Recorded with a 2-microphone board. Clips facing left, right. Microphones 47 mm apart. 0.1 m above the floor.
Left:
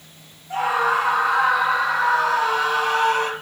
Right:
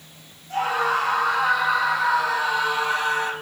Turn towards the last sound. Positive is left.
turn(degrees=45)  # may be behind; listen again after turning